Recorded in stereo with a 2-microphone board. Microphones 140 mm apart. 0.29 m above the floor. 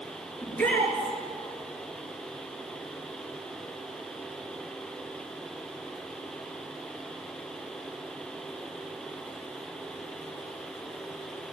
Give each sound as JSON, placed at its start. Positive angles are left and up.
{"t": 0.4, "sound": "a shout", "side_deg": 10, "distance_m": 4.0}